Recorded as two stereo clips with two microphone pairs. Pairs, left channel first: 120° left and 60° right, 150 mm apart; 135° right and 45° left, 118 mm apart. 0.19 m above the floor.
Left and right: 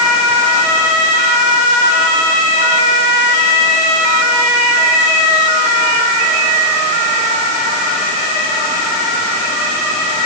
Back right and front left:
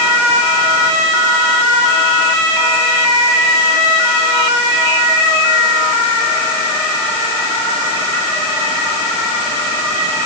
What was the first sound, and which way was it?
Only background noise.